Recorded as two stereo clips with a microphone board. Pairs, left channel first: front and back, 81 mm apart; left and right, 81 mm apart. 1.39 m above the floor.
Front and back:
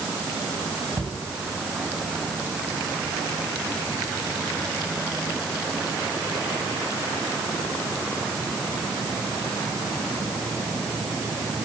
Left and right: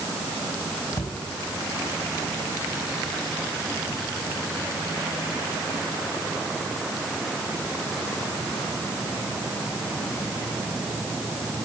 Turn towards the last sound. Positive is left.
turn(degrees=130)